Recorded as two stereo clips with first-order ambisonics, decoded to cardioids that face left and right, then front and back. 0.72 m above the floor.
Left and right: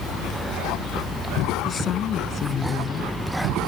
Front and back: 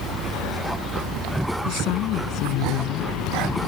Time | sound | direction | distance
1.6 | a woman speaking | 40° left | ?